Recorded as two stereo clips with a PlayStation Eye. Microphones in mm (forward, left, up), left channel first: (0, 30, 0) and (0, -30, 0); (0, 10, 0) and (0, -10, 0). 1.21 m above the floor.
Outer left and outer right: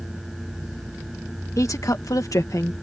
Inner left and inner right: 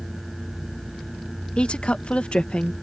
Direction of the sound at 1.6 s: 65° left (ahead or behind).